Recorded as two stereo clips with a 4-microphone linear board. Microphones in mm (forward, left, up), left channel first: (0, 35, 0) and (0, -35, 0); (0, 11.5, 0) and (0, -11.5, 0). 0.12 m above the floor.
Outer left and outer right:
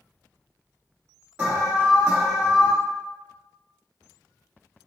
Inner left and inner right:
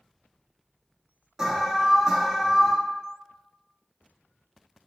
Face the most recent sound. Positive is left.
turn(degrees=-20)  # may be behind; listen again after turning